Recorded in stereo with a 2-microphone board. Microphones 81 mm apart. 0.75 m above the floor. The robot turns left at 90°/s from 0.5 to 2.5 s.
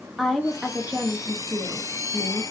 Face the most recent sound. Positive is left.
turn(degrees=-175)